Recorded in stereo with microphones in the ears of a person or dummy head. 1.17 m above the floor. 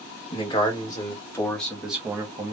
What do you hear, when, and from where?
0.3 s a man speaking: 25° left (ahead or behind), 1.5 m; by 2.5 s 30° right (ahead or behind), 0.7 m